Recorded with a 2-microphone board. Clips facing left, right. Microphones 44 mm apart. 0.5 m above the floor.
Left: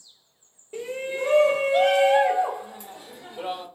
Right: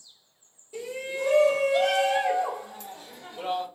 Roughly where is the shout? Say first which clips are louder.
Left 3 dB; left.